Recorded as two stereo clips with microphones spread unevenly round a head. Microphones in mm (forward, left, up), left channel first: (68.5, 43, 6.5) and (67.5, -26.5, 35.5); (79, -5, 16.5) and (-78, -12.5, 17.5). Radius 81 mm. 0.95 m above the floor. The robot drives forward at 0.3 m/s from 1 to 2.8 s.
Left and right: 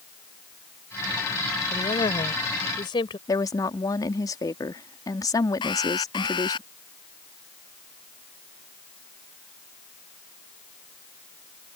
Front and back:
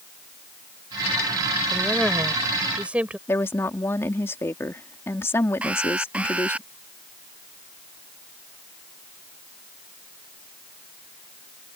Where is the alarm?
100° left.